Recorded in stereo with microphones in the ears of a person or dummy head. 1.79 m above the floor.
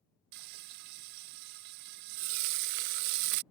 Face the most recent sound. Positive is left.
turn(degrees=-45)  # may be behind; listen again after turning